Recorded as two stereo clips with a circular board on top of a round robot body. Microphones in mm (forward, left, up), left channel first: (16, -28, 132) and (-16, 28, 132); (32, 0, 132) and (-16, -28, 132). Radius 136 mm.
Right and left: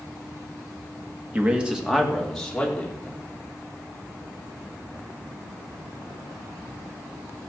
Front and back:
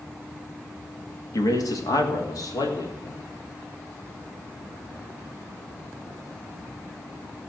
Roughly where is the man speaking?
Ahead left.